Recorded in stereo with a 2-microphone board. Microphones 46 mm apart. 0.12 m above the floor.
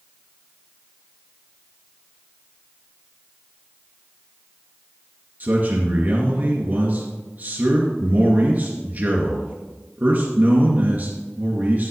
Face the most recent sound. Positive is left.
turn(degrees=-45)  # may be behind; listen again after turning